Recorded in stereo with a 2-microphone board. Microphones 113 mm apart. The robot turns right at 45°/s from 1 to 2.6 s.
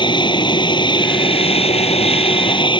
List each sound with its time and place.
0.0 s an aircraft: 55° left; by 2.8 s 125° left